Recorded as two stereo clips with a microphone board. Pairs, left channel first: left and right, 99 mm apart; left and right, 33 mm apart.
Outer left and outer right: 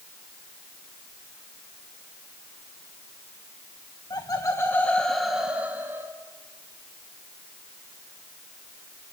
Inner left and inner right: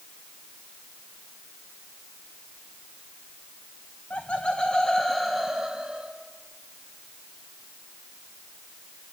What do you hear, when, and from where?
4.1 s laughter: 45° left (ahead or behind), 1.2 m; by 6.1 s 30° right (ahead or behind), 1.5 m